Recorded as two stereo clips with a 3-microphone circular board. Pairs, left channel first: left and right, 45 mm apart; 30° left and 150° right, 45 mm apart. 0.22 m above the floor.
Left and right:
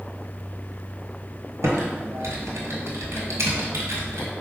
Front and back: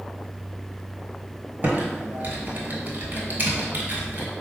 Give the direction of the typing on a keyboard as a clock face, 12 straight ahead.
3 o'clock.